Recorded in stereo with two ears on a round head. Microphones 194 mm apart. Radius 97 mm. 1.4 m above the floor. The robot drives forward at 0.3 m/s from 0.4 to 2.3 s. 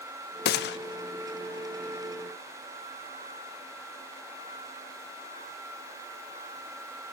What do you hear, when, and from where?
0.5 s a gunshot: 45° left (ahead or behind), 0.6 m; by 0.8 s 50° left (ahead or behind), 0.6 m